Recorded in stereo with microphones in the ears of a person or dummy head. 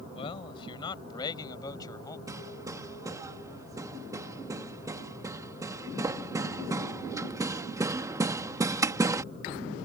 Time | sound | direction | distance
0.1 | a man speaking | 35° left (ahead or behind) | ?
2.3 | hammering | 20° right (ahead or behind) | ?